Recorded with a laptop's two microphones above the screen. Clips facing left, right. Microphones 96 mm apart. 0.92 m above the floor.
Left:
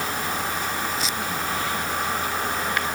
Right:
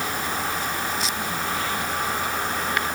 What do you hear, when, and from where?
Only background noise.